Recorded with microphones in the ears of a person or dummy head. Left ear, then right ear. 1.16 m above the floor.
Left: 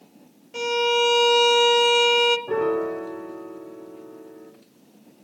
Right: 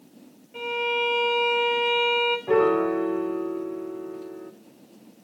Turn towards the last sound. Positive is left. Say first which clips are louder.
# right 3 dB
turn(degrees=-30)  # may be behind; listen again after turning